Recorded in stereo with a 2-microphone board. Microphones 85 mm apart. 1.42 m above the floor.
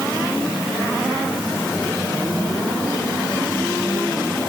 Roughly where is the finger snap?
I don't hear a finger snap.